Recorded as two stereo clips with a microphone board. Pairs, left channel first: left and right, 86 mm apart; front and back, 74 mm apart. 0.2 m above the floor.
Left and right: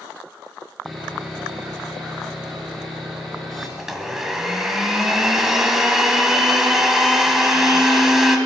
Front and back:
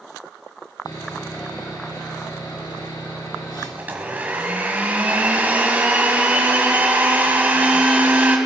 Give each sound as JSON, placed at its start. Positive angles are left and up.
{"t": 0.8, "sound": "sawing", "azimuth_deg": 0, "distance_m": 3.0}
{"t": 3.8, "sound": "a blender", "azimuth_deg": -170, "distance_m": 1.5}